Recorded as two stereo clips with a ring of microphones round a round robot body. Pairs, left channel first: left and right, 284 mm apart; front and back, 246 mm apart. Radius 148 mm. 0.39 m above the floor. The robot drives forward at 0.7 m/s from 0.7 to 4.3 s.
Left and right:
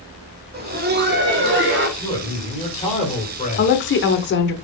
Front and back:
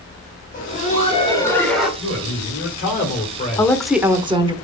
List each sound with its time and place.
0.5 s laughter: 45° right, 1.5 m; by 1.9 s 95° right, 1.3 m
2.0 s a man speaking: 20° left, 2 m; by 3.7 s 55° left, 1.4 m
3.6 s a woman speaking: 70° left, 1.0 m; by 4.5 s 120° left, 1.0 m